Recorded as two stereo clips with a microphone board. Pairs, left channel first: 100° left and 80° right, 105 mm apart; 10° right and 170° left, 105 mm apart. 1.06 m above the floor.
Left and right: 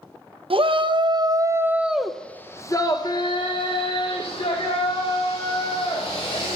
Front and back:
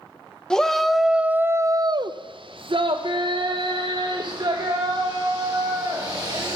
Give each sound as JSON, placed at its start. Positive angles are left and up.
{"t": 0.5, "sound": "a shout", "azimuth_deg": -95, "distance_m": 0.9}